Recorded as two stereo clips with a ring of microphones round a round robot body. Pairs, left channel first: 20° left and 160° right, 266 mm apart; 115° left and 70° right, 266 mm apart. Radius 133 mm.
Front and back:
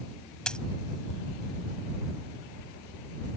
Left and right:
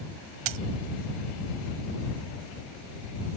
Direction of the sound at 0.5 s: 65° right.